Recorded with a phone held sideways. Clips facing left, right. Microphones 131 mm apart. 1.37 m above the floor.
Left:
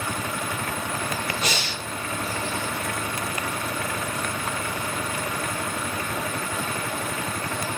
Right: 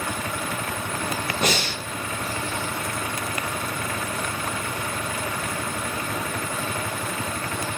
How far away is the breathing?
About 1.4 m.